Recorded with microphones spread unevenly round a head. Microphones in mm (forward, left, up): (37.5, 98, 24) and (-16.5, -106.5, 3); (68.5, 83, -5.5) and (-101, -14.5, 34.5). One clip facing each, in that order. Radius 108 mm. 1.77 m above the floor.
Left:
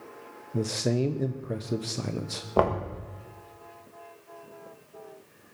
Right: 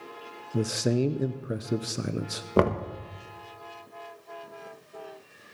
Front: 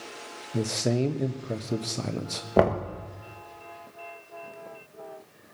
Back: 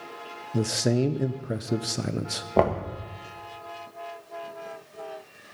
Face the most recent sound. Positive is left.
turn(degrees=-65)